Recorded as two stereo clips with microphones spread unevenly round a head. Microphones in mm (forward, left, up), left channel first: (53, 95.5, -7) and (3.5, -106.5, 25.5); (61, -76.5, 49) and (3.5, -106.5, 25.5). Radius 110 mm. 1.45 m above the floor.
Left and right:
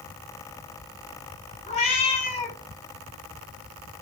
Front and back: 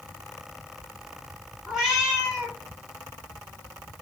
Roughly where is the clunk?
I don't hear a clunk.